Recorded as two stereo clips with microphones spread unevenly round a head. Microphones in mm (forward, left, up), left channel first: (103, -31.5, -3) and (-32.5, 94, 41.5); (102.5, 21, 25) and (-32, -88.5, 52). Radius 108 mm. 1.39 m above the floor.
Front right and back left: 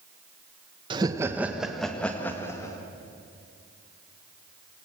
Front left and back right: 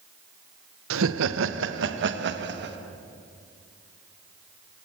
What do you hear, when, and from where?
0.9 s laughter: 155° right, 1.2 m; by 2.8 s 120° right, 2.5 m